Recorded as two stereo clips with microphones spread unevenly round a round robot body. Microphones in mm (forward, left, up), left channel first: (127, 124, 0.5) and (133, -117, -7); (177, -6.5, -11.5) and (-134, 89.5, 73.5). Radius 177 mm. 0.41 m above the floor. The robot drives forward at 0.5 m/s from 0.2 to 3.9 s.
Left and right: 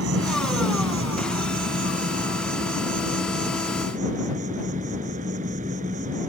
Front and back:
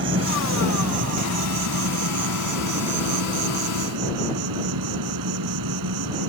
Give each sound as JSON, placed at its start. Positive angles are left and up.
{"t": 0.0, "sound": "an insect", "azimuth_deg": -135}